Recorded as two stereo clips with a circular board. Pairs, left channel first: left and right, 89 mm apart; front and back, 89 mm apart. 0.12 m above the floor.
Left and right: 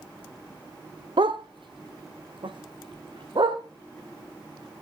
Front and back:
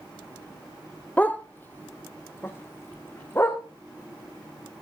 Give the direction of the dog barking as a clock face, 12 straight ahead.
2 o'clock.